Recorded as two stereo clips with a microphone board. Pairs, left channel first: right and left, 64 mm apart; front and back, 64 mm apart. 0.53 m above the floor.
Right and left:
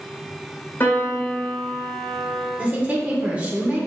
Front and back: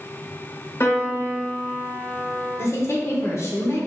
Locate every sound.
0.8 s a piano: 40° right, 1.0 m
2.6 s a woman speaking: 30° left, 1.1 m